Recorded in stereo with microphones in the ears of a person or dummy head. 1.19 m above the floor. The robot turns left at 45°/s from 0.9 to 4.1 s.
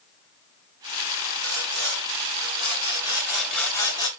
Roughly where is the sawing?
Right.